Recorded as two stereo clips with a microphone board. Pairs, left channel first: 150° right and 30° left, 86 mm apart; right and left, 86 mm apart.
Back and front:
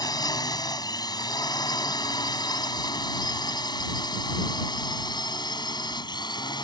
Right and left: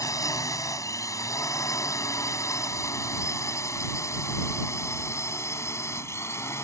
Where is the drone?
130° right; by 6.6 s 140° right.